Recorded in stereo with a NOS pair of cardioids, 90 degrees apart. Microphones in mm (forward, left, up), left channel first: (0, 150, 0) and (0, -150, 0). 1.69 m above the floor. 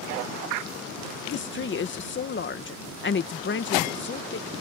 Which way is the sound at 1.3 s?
35° left.